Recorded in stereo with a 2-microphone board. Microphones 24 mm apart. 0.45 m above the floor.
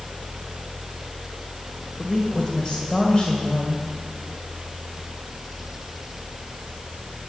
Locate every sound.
2.0 s a woman speaking: 35° left (ahead or behind), 2.0 m